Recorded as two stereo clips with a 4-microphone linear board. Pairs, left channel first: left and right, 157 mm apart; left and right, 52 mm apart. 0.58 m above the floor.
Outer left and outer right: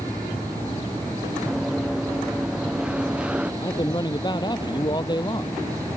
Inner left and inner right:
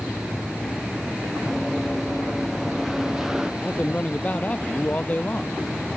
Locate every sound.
1.5 s running footsteps: 5° right (ahead or behind)
3.6 s a man speaking: 30° left (ahead or behind)